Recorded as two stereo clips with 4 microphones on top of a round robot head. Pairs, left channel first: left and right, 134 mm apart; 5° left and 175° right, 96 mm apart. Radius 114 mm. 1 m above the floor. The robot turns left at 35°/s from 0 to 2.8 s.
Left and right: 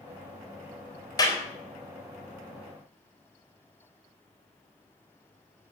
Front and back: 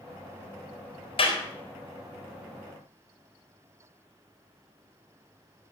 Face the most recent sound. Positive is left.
turn(degrees=-30)